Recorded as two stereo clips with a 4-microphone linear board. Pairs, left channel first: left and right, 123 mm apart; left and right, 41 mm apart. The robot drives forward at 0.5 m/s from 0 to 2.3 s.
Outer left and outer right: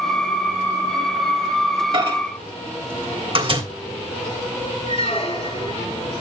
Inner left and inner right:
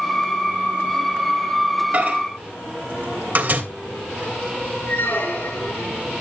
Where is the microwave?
45° right (ahead or behind), 3 m.